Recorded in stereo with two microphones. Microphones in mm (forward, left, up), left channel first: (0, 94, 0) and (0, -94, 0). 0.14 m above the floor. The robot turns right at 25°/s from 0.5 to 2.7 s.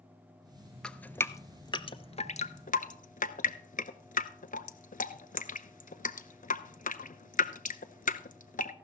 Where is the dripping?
5° left (ahead or behind), 0.6 m; by 8.7 s 45° left (ahead or behind), 0.6 m.